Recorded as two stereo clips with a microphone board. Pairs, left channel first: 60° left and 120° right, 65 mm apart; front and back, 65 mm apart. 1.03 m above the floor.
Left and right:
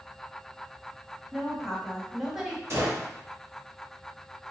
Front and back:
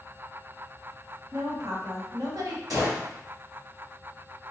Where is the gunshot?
165° right, 1.8 m.